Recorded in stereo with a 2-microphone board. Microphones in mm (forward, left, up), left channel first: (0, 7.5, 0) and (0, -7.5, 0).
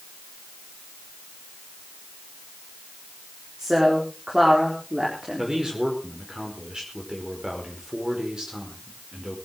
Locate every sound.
3.6 s a woman speaking: 45° right (ahead or behind), 4 m
5.4 s a man speaking: 55° right (ahead or behind), 5 m